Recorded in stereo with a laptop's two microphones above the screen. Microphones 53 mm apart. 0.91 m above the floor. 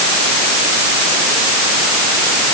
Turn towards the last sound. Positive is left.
No sound to turn to.